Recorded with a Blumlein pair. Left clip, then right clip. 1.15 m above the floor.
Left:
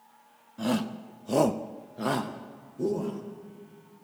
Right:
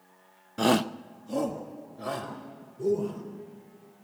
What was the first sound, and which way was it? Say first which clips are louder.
A shout: right 6 dB; 35° right.